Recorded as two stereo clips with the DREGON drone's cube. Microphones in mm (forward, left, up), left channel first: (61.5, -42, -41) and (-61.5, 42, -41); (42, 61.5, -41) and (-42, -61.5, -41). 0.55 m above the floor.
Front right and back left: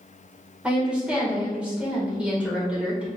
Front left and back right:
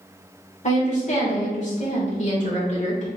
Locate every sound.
0.6 s a woman speaking: 65° left, 1.7 m